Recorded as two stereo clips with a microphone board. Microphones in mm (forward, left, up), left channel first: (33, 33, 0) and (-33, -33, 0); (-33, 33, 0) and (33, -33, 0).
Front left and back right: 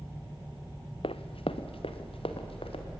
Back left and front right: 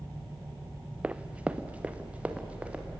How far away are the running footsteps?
About 0.8 m.